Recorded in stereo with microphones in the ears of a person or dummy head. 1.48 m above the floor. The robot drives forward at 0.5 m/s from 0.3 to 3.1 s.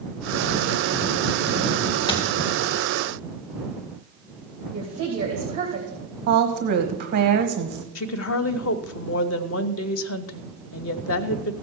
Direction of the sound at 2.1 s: 25° left (ahead or behind).